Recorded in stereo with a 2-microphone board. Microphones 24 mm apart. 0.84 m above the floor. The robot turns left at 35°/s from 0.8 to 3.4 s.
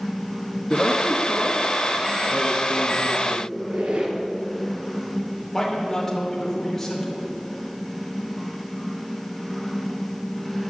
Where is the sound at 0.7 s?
35° left, 1.3 m; by 3.4 s 55° right, 1.3 m.